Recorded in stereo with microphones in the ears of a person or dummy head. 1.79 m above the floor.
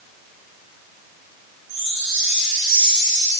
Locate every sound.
1.7 s a chime: 45° right (ahead or behind), 9.5 m